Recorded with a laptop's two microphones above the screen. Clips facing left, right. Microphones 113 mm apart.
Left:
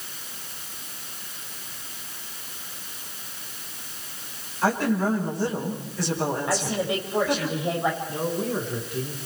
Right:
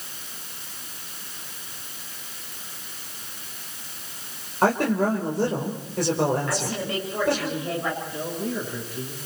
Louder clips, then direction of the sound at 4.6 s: Right 2 dB; 55° right (ahead or behind).